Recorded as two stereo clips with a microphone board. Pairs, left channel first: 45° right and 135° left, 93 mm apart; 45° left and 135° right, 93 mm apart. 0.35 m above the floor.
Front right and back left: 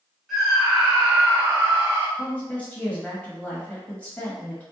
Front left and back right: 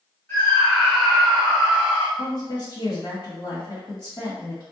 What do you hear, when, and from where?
0.3 s a scream: 45° left, 1.5 m; by 2.1 s 165° left, 1.7 m
2.2 s a woman speaking: 25° left, 2.0 m